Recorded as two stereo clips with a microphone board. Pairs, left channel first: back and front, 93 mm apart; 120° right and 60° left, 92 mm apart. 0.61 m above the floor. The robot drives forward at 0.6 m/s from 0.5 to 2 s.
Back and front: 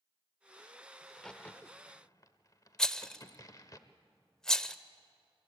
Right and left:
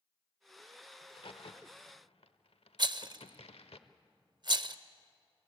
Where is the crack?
85° right, 0.7 m; by 3.8 s 125° right, 0.9 m.